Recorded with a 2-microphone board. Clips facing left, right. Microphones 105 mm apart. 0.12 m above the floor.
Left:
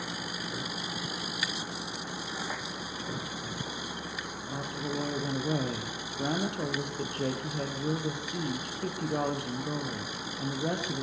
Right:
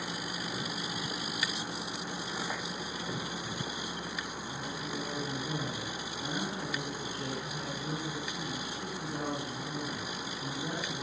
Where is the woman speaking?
70° left (ahead or behind), 4 m.